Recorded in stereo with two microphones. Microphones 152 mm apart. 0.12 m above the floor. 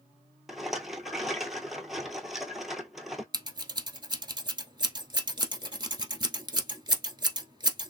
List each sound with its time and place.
0.5 s a rattle: centre (ahead or behind), 0.7 m
3.3 s scissors: 30° right (ahead or behind), 1.0 m